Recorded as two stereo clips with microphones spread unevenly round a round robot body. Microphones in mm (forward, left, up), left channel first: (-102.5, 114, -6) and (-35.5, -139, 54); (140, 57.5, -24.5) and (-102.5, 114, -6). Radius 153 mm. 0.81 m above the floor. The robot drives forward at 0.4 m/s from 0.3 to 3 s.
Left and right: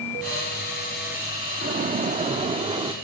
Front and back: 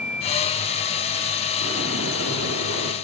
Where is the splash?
135° right, 1.1 m; by 2.9 s 150° right, 1.5 m.